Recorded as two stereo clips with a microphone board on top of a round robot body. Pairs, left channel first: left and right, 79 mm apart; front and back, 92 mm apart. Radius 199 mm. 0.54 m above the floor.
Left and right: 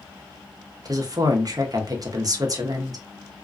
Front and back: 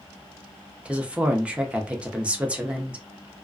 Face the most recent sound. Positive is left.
turn(degrees=-105)